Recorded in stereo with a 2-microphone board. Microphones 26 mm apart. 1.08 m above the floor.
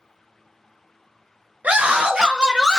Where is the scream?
70° right (ahead or behind), 0.8 m; by 2.8 s 20° right (ahead or behind), 1.0 m.